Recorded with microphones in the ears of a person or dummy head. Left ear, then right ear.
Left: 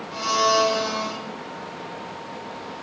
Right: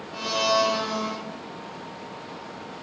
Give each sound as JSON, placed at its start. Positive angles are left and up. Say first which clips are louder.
{"t": 0.1, "sound": "a blender", "louder": "left 3 dB", "side_deg": 75, "distance_m": 0.8}